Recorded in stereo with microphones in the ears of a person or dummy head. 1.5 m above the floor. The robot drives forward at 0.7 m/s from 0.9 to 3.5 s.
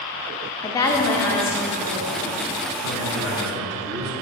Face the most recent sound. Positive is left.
turn(degrees=-60)  # may be behind; listen again after turning